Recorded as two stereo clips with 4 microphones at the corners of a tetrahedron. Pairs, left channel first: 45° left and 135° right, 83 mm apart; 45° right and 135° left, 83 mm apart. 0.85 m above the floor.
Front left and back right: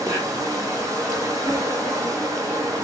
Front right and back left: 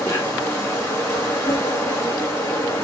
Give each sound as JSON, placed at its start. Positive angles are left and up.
{"t": 0.0, "sound": "an insect", "azimuth_deg": -100, "distance_m": 2.0}